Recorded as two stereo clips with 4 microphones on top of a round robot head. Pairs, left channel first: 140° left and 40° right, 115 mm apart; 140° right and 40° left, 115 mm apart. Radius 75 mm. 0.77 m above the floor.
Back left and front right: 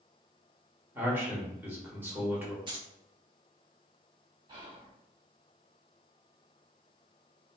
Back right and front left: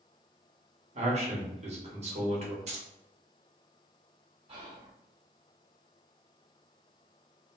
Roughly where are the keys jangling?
Ahead.